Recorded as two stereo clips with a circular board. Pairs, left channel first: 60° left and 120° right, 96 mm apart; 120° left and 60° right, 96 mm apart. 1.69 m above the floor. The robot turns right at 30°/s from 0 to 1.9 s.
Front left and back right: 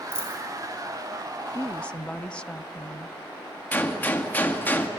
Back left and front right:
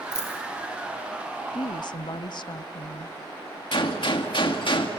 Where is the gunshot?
125° left, 1.9 m.